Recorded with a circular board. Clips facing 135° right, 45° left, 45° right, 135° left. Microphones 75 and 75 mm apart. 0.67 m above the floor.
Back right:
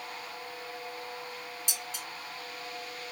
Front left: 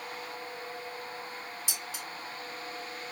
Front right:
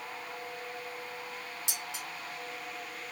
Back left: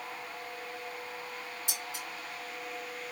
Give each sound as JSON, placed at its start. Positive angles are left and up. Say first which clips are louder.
{"t": 1.7, "sound": "dishes clattering", "louder": "even, even", "azimuth_deg": -40, "distance_m": 3.5}